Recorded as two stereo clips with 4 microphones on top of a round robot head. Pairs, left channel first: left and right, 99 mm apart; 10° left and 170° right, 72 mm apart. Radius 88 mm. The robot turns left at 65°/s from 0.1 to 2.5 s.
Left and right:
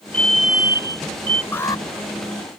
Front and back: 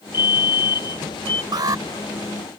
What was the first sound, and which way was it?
A fire alarm, 15° left.